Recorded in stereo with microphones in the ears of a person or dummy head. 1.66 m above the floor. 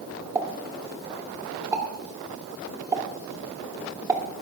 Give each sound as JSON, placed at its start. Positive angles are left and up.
{"t": 0.3, "sound": "a pop", "side_deg": -20, "distance_m": 2.0}